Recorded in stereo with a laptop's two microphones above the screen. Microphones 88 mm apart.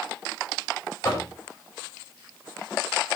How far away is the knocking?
About 5.5 m.